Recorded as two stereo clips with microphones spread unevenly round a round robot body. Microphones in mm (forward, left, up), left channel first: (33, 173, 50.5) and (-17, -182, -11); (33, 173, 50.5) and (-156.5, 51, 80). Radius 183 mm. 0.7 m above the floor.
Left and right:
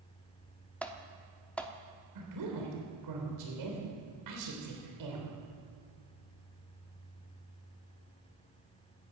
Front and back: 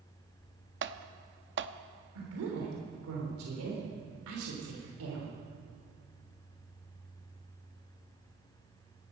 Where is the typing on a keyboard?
170° left, 0.9 m.